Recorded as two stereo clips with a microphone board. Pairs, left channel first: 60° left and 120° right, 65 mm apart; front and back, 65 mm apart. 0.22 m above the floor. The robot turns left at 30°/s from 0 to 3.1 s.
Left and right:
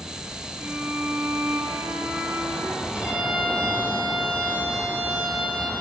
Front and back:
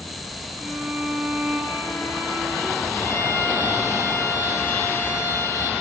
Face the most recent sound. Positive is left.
turn(degrees=-50)